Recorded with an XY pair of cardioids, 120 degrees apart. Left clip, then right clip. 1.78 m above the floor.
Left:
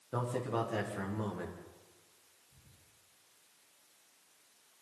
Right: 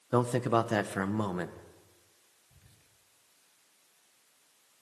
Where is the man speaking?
55° right, 2 m.